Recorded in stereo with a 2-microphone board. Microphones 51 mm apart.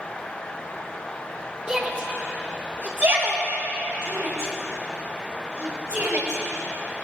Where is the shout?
25° right (ahead or behind), 2.5 m; by 6.4 s 75° right (ahead or behind), 7 m.